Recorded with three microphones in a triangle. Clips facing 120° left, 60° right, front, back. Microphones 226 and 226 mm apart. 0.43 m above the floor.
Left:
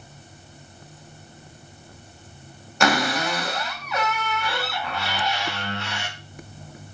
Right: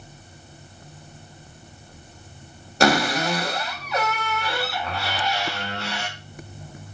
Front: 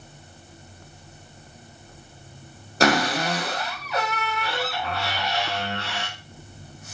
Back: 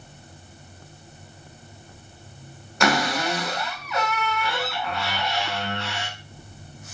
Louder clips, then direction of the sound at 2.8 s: Right 3 dB, front 2 dB; 30° right.